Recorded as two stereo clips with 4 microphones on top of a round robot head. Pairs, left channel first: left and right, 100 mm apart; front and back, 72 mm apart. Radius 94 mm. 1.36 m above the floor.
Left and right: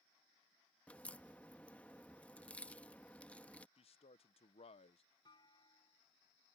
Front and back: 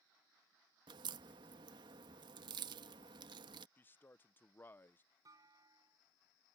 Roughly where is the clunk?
Behind left.